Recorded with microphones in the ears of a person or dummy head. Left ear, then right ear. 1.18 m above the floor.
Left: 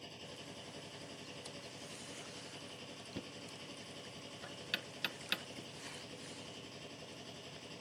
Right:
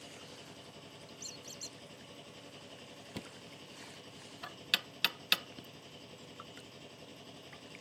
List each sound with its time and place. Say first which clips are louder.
0.0 s a machine running: even; centre (ahead or behind)
1.2 s a squeak: right 3 dB; 80° right
3.1 s knocking: right 1 dB; 35° right (ahead or behind)